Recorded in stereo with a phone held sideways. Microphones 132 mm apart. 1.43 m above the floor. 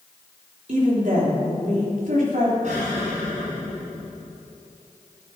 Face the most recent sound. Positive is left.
turn(degrees=-65)  # may be behind; listen again after turning